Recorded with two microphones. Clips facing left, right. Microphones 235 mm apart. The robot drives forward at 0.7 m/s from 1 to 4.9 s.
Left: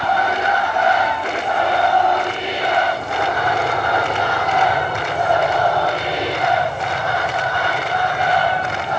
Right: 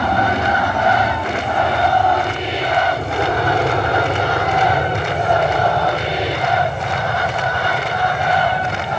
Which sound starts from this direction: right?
An aircraft, at 0.0 s.